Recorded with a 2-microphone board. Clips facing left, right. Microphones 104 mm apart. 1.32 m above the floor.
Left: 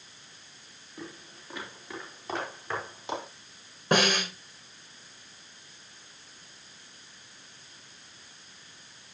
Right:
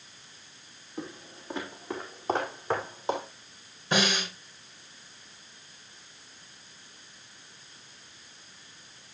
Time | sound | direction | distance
1.0 | footsteps | 30° right (ahead or behind) | 3.5 m
3.9 | a snare drum | 60° left (ahead or behind) | 4 m